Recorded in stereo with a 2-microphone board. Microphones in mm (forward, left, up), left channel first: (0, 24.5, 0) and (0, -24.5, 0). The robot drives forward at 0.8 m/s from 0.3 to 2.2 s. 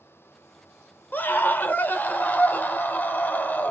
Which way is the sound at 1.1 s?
40° left (ahead or behind).